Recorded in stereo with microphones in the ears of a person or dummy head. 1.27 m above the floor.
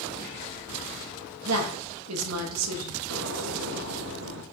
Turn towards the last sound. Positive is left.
turn(degrees=-70)  # may be behind; listen again after turning